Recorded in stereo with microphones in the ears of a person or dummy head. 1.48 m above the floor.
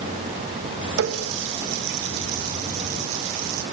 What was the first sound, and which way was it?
A running tap, 70° right (ahead or behind).